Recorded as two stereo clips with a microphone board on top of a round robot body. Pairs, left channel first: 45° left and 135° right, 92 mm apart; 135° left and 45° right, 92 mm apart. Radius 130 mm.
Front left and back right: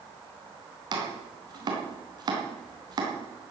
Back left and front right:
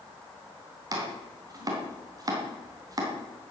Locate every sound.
0.9 s chopping: 90° right, 3.5 m